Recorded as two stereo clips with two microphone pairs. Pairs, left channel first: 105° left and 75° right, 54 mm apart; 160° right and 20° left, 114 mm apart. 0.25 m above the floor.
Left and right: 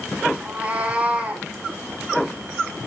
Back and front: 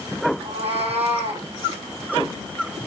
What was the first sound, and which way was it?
A cat meowing, 5° right.